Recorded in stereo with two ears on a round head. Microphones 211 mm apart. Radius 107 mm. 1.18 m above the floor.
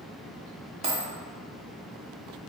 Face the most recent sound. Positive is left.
turn(degrees=-30)  # may be behind; listen again after turning